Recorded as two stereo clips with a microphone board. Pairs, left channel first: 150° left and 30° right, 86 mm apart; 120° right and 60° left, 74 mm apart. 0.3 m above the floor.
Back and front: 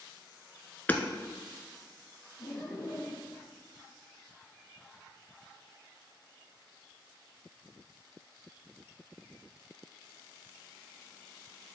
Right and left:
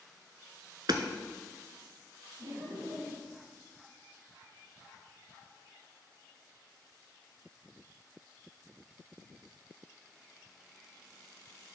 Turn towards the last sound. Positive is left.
turn(degrees=90)